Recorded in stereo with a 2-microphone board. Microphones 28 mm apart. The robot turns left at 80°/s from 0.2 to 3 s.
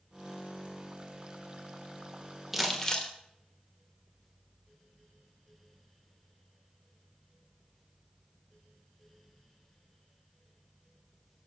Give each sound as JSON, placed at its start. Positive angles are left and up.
{"t": 2.5, "sound": "crumpling", "azimuth_deg": -175, "distance_m": 1.2}